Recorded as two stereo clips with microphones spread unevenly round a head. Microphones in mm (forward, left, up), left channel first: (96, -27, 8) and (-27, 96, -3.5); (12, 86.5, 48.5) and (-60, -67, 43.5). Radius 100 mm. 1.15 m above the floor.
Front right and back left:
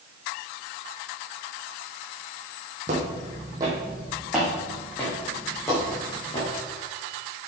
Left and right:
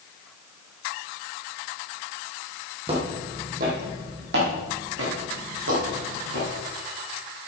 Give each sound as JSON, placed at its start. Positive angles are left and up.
{"t": 2.9, "sound": "footsteps", "azimuth_deg": -170, "distance_m": 2.0}